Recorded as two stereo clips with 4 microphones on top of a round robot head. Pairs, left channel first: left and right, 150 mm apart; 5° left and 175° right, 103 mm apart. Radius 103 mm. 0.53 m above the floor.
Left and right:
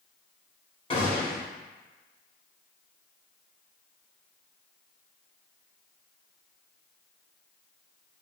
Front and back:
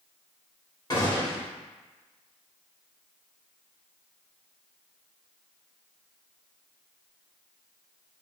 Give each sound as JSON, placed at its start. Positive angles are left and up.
{"t": 0.9, "sound": "a gunshot", "azimuth_deg": 45, "distance_m": 1.8}